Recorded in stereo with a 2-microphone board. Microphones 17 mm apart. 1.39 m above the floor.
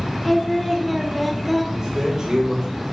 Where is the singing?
Centre (ahead or behind), 1.2 m.